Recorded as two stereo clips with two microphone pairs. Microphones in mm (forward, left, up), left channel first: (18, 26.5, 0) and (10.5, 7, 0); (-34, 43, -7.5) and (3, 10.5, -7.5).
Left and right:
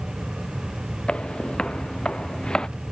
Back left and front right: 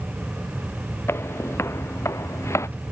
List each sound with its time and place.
1.1 s footsteps: 105° left; by 2.7 s 120° left